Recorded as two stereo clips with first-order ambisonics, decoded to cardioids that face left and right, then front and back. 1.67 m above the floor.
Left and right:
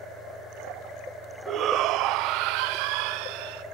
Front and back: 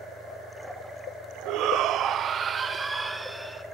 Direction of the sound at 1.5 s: 145° right.